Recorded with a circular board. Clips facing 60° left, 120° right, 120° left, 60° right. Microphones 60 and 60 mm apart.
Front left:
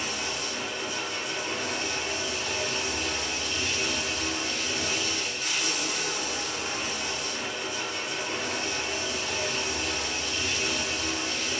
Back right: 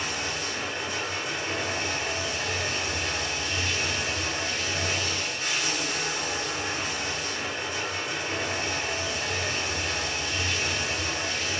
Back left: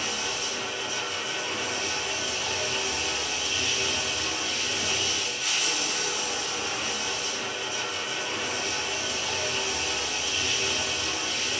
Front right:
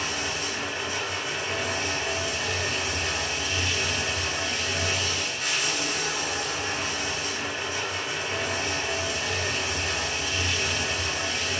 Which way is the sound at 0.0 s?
90° right.